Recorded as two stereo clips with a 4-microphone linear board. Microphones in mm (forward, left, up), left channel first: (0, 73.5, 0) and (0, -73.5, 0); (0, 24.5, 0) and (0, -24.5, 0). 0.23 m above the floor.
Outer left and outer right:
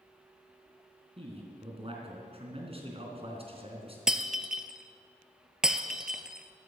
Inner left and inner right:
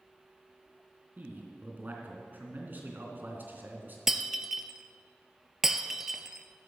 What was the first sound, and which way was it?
A man speaking, 40° right (ahead or behind).